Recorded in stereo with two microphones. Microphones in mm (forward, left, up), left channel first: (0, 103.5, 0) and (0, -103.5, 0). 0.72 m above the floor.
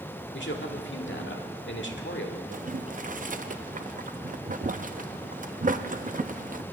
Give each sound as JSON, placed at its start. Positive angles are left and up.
{"t": 0.3, "sound": "a man speaking", "side_deg": 65, "distance_m": 1.6}
{"t": 2.5, "sound": "boiling", "side_deg": -40, "distance_m": 0.6}